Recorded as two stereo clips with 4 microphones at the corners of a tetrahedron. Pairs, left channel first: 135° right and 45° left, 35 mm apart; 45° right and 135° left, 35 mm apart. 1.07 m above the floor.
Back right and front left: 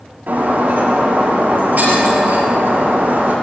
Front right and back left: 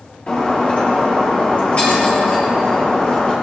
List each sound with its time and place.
0.3 s breaking glass: 10° left, 6.5 m